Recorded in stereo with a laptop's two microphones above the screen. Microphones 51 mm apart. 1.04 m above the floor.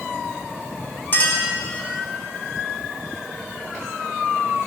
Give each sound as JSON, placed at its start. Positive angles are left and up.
{"t": 1.1, "sound": "a clink", "side_deg": 45, "distance_m": 1.9}